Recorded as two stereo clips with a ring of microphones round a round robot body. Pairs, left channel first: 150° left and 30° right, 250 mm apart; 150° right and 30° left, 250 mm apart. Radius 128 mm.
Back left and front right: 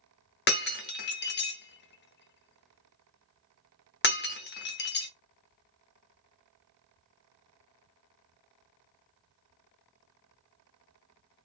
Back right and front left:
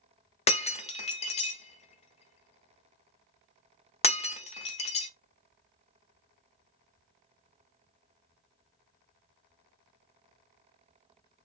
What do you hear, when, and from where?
0.5 s breaking glass: 160° left, 0.7 m